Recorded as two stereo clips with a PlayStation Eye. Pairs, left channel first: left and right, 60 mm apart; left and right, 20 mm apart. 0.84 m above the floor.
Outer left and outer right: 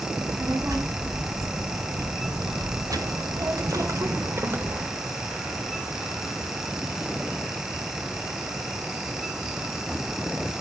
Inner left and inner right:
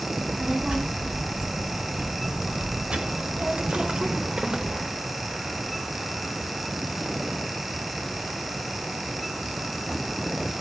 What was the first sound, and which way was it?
A child speaking, 75° right (ahead or behind).